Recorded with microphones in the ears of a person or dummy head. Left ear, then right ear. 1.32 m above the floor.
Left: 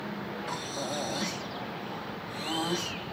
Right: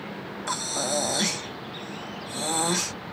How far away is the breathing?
About 0.6 m.